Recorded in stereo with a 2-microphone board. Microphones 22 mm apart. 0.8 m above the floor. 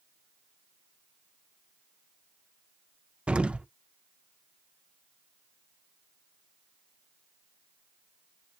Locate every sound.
3.3 s an explosion: 70° right (ahead or behind), 0.6 m